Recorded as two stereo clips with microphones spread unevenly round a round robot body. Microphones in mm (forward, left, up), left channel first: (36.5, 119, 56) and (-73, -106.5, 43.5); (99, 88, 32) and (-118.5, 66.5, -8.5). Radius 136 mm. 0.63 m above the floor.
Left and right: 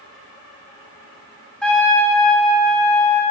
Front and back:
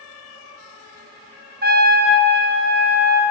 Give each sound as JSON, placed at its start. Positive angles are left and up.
{"t": 1.6, "sound": "a trumpet", "azimuth_deg": 150, "distance_m": 1.7}